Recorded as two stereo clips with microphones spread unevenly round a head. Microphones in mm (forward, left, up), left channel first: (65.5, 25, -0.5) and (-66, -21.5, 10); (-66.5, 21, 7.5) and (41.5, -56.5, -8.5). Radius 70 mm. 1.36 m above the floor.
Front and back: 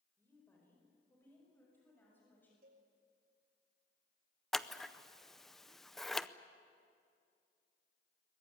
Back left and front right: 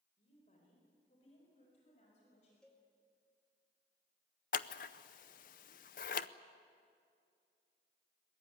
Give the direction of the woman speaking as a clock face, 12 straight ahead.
9 o'clock.